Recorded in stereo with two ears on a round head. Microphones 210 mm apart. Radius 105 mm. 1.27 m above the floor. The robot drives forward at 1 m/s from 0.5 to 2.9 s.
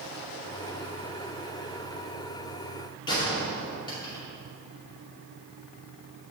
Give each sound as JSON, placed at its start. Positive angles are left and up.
{"t": 3.1, "sound": "a gunshot", "side_deg": 20, "distance_m": 2.5}